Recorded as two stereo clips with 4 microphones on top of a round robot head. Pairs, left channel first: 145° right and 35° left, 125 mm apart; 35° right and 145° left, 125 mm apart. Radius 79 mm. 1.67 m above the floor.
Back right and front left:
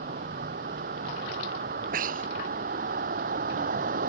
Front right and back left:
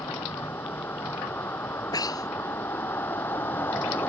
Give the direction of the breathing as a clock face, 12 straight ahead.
11 o'clock.